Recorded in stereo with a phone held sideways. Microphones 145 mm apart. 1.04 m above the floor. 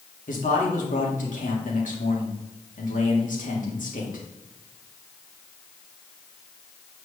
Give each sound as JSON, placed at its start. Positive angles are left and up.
{"t": 0.3, "sound": "a man speaking", "side_deg": 65, "distance_m": 2.5}